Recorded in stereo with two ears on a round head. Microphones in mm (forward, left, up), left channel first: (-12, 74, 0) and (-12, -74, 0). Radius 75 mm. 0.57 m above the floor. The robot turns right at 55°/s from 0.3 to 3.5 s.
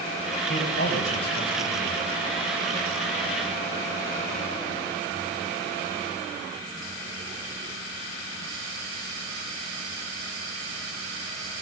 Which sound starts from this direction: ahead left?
A man speaking, at 0.5 s.